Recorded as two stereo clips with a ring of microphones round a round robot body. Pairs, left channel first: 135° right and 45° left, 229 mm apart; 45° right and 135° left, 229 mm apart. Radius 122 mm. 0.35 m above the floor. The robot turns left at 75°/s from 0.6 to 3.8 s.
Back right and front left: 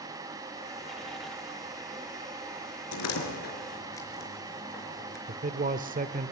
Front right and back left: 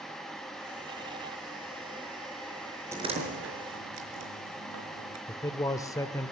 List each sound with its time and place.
2.9 s a door slam: 145° right, 4.5 m; by 5.2 s 150° left, 4.5 m
5.3 s a man speaking: 20° left, 1.1 m